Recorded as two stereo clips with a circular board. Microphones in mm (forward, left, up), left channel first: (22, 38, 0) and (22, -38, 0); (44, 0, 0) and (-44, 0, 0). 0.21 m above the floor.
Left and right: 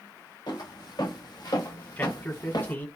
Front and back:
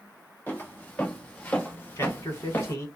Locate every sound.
0.5 s footsteps: 70° left, 2 m; by 2.8 s 65° left, 0.9 m
2.0 s a man speaking: 35° left, 1.6 m